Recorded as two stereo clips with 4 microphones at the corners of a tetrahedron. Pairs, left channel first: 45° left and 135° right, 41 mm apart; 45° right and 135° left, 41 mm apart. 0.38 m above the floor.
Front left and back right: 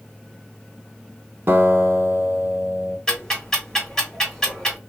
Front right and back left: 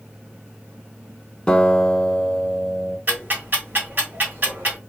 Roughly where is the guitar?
Behind right.